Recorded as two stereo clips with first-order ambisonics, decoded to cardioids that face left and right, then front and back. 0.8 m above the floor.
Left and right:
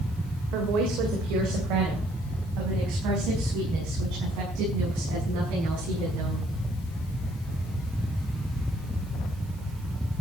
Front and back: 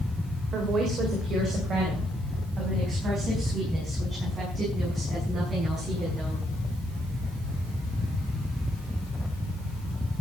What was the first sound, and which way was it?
A woman speaking, 120° right.